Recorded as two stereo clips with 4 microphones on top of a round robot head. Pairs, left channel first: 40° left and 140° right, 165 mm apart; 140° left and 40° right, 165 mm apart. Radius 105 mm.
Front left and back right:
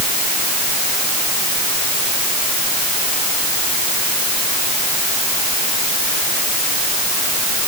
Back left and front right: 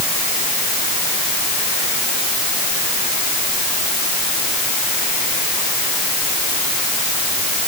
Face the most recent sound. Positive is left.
No sound to turn to.